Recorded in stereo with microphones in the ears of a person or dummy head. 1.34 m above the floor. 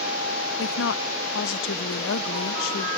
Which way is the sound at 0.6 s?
70° left (ahead or behind).